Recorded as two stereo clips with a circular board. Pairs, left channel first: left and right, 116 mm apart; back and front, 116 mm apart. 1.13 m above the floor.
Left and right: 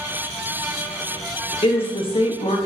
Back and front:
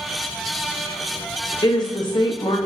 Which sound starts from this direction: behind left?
A woman speaking, at 1.6 s.